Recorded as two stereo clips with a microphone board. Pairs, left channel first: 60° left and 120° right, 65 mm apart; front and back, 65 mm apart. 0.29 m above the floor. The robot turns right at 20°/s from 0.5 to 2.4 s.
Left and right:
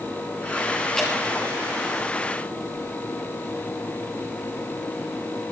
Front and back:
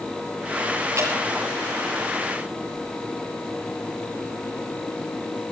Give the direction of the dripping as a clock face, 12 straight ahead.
7 o'clock.